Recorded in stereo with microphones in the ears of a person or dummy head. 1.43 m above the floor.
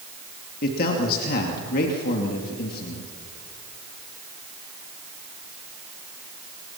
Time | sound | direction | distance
0.6 | a man speaking | 50° left (ahead or behind) | 2.5 m